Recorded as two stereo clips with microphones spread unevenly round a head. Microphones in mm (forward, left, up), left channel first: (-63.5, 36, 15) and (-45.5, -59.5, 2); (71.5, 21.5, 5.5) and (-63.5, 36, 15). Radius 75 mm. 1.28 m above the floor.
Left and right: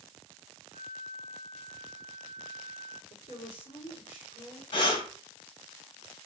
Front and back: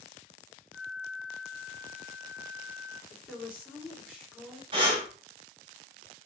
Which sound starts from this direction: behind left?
Breathing, at 4.7 s.